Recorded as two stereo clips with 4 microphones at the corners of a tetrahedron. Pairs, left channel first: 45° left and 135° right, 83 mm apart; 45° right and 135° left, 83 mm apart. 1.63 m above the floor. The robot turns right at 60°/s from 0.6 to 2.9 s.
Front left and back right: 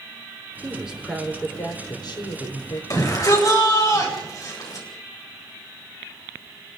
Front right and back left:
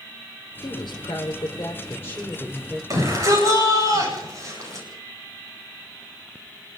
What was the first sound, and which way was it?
A woman speaking, 70° right.